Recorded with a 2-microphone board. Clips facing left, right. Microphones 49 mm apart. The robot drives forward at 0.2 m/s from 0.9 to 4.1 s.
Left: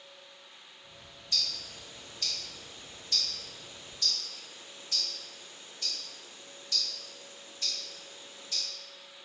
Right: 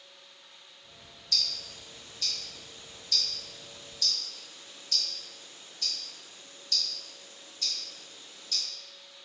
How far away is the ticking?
About 1.3 m.